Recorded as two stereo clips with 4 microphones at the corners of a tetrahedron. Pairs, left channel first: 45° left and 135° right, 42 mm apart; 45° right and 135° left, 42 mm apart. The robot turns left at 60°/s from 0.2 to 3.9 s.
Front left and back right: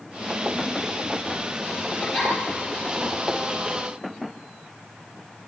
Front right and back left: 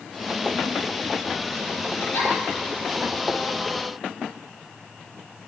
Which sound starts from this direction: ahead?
A giggle, at 2.0 s.